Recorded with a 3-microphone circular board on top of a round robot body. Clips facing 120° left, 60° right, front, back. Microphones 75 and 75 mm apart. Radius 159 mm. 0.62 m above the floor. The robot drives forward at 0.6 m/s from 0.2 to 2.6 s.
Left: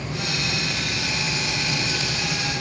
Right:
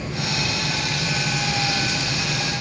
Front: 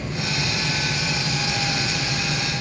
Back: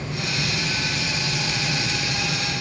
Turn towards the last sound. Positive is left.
No sound to turn to.